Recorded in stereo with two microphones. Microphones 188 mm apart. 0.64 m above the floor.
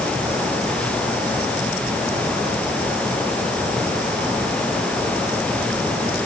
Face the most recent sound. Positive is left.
No sound to turn to.